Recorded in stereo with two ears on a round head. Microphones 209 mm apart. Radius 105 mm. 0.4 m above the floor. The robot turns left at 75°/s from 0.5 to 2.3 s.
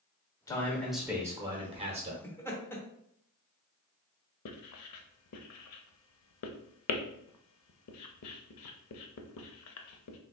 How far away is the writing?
About 0.5 m.